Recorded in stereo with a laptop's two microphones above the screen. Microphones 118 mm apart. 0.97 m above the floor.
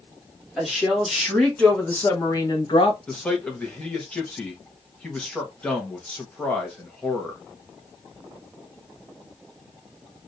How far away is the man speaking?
About 1.0 m.